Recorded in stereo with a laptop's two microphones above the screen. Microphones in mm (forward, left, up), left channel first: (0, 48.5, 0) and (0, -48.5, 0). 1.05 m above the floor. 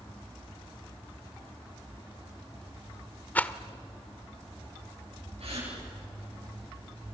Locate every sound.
3.4 s a rattle: 15° left (ahead or behind), 1.1 m
5.4 s a gasp: 70° right (ahead or behind), 9.5 m